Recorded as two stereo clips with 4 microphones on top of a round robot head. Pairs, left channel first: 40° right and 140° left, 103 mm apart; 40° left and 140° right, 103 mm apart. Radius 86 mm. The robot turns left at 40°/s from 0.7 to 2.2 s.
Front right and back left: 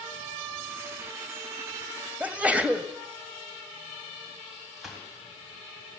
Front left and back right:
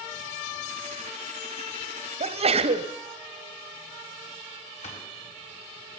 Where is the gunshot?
50° left, 4 m.